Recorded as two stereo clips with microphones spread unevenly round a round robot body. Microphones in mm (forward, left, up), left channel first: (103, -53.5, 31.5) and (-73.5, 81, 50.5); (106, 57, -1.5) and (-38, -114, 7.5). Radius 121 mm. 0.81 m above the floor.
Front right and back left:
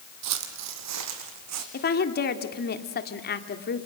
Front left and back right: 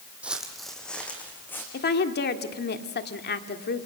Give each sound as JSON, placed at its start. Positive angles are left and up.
{"t": 0.2, "sound": "footsteps", "azimuth_deg": 145, "distance_m": 1.9}
{"t": 1.7, "sound": "a woman speaking", "azimuth_deg": 5, "distance_m": 1.9}